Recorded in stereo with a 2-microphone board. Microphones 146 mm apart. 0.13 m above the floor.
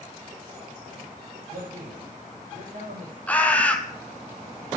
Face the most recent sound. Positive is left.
turn(degrees=10)  # may be behind; listen again after turning